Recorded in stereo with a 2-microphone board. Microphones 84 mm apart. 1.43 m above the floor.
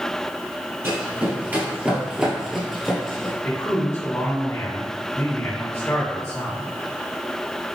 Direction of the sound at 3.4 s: 30° left (ahead or behind).